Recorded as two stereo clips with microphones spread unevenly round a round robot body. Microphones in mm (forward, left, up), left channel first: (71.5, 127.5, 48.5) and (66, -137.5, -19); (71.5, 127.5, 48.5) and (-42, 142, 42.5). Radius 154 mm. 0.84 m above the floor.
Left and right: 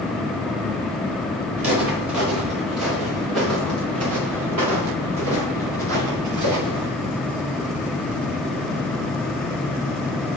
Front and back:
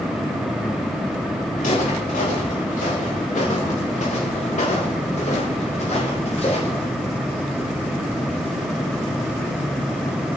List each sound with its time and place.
1.6 s footsteps: 50° right, 8 m; by 6.9 s 75° right, 6 m